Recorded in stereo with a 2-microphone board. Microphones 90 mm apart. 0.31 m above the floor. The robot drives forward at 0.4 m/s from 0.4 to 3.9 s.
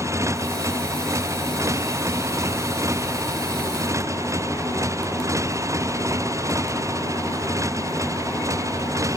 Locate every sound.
0.0 s a motorcycle: 35° right (ahead or behind)